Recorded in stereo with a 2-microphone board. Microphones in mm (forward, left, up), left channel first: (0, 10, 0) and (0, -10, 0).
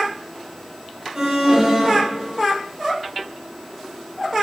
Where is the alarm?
30° right (ahead or behind), 8 m.